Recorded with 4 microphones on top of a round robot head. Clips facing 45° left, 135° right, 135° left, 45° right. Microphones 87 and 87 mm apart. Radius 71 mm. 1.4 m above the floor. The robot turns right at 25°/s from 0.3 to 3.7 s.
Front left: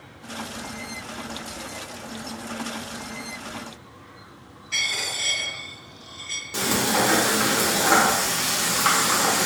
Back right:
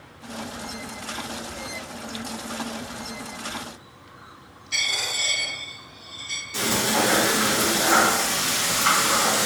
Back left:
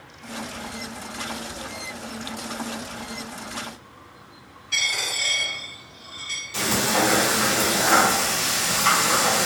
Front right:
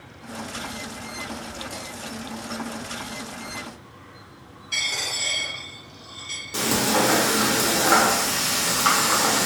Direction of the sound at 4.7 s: 65° right.